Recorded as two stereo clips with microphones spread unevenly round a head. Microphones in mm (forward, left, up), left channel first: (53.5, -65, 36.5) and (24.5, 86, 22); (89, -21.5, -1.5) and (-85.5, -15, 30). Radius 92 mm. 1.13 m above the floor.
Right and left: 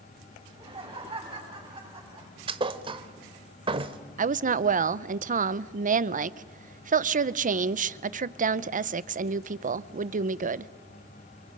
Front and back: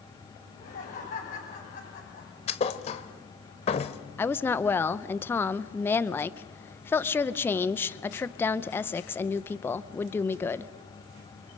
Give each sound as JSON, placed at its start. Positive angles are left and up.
{"t": 0.5, "sound": "laughter", "azimuth_deg": 45, "distance_m": 6.5}
{"t": 2.5, "sound": "a thud", "azimuth_deg": 55, "distance_m": 1.0}
{"t": 4.2, "sound": "a woman speaking", "azimuth_deg": 70, "distance_m": 0.7}